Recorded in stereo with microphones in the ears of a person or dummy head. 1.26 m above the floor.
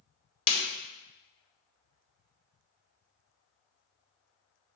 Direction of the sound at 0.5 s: 30° left (ahead or behind).